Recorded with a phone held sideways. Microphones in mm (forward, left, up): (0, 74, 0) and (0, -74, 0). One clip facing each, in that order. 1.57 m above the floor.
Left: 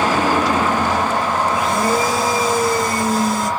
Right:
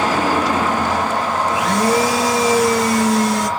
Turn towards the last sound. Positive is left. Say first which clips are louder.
# right 1 dB
turn(degrees=-80)